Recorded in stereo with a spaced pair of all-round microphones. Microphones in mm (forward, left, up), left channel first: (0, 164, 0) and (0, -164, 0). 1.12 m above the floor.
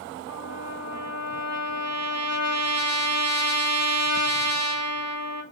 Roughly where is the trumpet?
Left.